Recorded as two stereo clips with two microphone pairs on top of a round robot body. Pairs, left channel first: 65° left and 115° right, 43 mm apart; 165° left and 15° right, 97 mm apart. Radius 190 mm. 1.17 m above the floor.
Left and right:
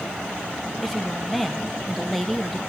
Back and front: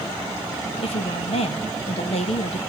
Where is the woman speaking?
155° left, 1.9 m.